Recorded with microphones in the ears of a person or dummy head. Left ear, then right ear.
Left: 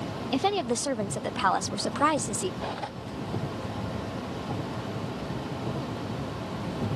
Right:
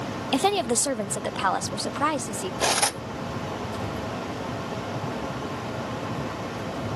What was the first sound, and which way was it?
A woman speaking, 35° right (ahead or behind).